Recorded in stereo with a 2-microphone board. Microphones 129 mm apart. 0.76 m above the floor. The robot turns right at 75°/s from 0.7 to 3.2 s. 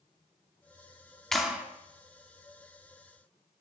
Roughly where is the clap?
Centre.